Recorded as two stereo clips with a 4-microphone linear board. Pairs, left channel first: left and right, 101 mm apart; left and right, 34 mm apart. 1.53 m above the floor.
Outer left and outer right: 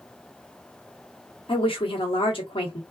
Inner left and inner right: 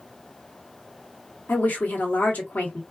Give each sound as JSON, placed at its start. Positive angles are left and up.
{"t": 1.5, "sound": "a woman speaking", "side_deg": 60, "distance_m": 1.1}